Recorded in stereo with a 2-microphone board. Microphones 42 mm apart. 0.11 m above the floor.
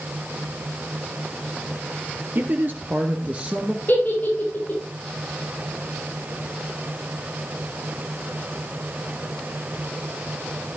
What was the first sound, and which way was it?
A man speaking, 55° right (ahead or behind).